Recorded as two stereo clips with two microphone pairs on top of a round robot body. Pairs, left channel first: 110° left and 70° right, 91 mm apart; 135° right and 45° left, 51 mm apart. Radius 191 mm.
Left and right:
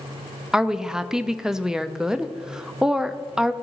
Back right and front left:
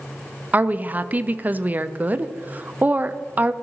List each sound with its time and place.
0.5 s a woman speaking: 10° left, 0.6 m